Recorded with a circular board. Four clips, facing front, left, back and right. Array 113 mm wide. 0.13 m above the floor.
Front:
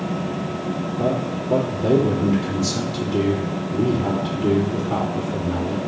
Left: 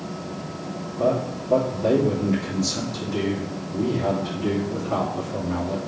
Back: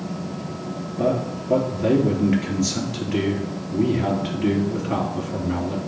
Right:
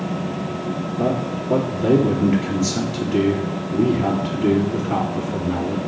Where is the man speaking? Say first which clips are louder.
Left 1 dB, back 2 dB; 145° right, 2.5 m.